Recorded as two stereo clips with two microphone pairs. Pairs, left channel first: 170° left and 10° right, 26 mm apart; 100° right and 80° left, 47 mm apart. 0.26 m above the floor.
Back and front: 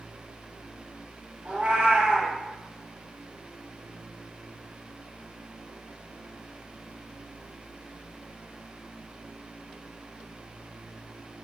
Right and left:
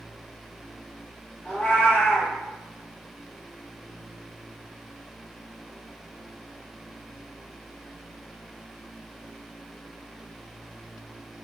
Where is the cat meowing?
30° right, 1.0 m.